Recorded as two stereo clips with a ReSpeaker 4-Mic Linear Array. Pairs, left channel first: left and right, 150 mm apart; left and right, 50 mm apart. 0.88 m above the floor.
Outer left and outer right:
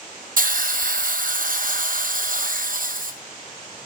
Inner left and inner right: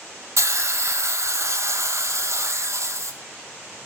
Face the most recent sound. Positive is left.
turn(degrees=-65)  # may be behind; listen again after turning